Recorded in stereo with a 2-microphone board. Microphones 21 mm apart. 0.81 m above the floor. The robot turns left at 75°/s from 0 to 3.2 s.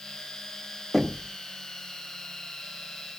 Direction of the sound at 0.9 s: 5° right (ahead or behind).